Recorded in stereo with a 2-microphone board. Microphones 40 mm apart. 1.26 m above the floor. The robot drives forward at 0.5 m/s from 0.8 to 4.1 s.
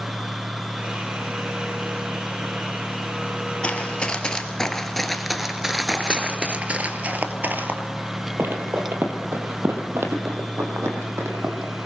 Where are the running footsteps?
25° left (ahead or behind), 1.8 m; by 11.7 s 70° right (ahead or behind), 3.5 m.